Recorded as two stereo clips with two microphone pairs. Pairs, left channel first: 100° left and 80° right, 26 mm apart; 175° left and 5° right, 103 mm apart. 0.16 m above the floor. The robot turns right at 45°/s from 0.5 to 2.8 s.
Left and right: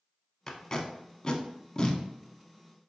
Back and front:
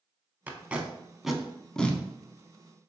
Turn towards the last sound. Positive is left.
turn(degrees=155)